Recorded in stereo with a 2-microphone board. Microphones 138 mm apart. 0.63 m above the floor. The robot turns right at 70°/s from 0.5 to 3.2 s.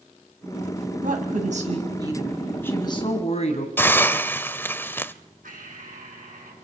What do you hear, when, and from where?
1.0 s a woman speaking: 100° right, 4.5 m; by 3.7 s 55° left, 4.5 m
3.8 s a hiss: 15° left (ahead or behind), 0.8 m
5.4 s breathing: 80° right, 5.5 m